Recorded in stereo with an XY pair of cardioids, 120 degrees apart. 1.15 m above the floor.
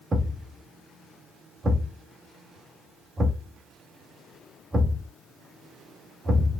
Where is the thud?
20° right, 2 m.